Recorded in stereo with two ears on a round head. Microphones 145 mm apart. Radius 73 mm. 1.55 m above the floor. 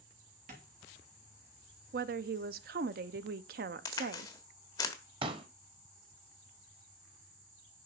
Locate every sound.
0.5 s tapping: 50° right (ahead or behind), 2.5 m
1.9 s a woman speaking: 60° right (ahead or behind), 0.5 m
3.9 s a crack: 20° left (ahead or behind), 1.1 m
5.2 s a pop: 30° right (ahead or behind), 0.8 m